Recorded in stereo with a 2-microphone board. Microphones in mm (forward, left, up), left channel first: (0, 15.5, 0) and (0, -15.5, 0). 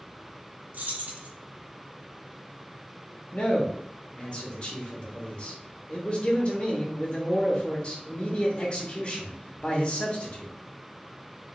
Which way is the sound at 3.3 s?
40° left (ahead or behind).